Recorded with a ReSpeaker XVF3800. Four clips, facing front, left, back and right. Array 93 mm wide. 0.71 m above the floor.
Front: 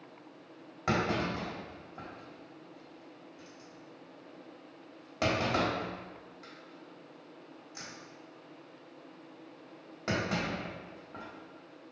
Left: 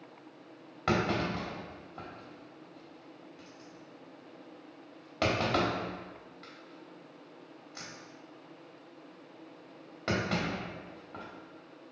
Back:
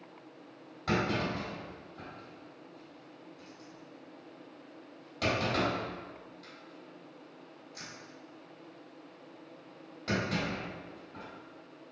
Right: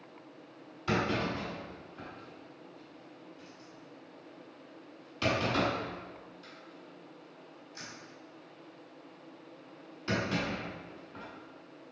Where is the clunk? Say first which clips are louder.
Left 1 dB, even; 70° left, 1.3 m.